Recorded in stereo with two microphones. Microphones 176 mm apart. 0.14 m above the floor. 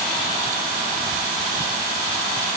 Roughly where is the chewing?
No chewing in this recording.